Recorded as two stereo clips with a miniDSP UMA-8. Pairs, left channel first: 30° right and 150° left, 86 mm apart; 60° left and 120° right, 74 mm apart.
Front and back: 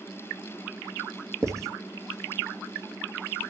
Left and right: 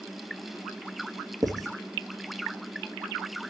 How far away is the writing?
About 2.5 m.